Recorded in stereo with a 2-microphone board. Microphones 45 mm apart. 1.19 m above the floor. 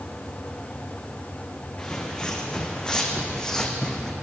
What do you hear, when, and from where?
1.8 s footsteps: 20° left (ahead or behind), 4.5 m; by 4.1 s 10° left (ahead or behind), 3 m